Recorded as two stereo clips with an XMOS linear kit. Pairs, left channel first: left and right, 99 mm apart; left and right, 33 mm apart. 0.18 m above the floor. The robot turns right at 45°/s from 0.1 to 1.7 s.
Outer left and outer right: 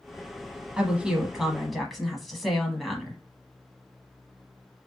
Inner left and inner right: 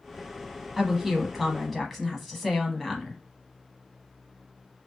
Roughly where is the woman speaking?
Centre.